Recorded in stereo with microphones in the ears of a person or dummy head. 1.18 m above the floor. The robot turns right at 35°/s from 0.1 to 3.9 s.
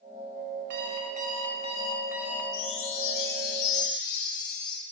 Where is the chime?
35° left, 2 m; by 4.8 s 85° left, 2 m.